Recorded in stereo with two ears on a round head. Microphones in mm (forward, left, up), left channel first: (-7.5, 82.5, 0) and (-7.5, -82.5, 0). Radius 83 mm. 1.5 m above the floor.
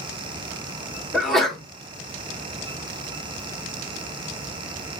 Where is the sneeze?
Centre (ahead or behind), 1.1 m.